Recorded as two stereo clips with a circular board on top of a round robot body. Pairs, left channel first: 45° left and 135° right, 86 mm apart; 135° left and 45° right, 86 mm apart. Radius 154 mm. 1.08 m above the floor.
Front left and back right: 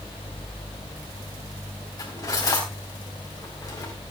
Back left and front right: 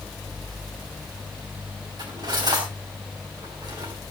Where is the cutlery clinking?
10° right, 4.5 m.